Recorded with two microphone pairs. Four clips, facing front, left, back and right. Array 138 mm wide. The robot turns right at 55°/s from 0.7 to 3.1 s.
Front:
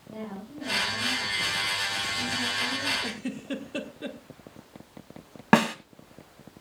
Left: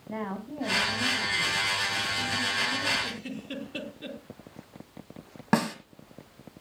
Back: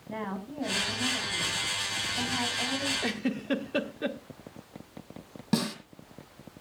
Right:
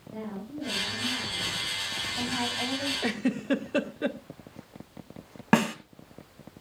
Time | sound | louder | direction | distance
0.1 | a woman speaking | left 3 dB, back 3 dB | 130° left | 6.5 m
3.0 | a giggle | right 9 dB, back 4 dB | 125° right | 1.3 m
5.5 | a snare drum | right 2 dB, front 8 dB | straight ahead | 1.5 m